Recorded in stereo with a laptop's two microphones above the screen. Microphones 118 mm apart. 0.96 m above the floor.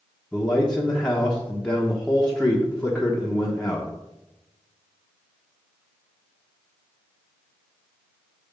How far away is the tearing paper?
I don't hear tearing paper.